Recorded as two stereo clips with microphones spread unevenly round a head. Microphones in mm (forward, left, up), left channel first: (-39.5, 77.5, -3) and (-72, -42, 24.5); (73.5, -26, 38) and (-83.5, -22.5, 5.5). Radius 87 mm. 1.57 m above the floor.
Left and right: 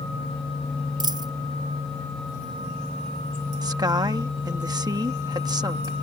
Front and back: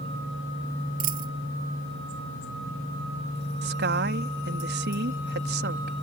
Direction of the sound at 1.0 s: 145° right.